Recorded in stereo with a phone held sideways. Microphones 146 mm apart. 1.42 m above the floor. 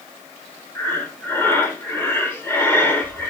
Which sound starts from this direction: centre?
Breathing, at 0.8 s.